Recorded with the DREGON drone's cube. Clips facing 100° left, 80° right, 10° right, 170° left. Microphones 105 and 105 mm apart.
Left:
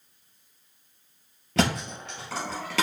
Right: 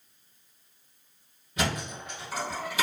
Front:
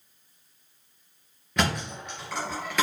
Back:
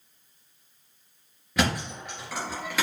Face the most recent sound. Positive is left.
turn(degrees=80)